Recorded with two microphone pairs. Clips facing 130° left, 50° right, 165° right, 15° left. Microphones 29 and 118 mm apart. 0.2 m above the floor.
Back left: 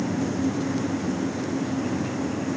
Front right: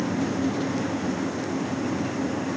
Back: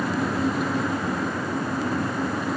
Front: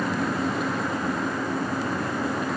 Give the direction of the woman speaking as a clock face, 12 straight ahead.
I don't hear a woman speaking.